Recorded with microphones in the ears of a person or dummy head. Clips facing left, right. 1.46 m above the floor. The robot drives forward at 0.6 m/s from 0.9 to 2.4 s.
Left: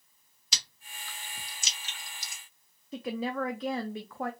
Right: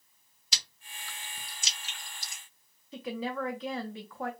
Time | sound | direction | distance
0.5 | chewing | 70° left (ahead or behind) | 1.1 m
2.9 | a woman speaking | 45° left (ahead or behind) | 0.5 m